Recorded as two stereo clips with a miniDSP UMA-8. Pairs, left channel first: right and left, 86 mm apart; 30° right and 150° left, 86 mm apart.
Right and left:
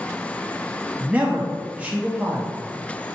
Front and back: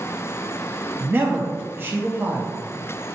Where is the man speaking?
145° left, 0.5 m.